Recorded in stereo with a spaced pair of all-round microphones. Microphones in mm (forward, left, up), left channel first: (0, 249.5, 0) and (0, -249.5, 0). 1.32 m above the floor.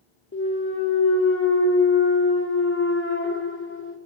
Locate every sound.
0.3 s a clunk: 25° left (ahead or behind), 0.6 m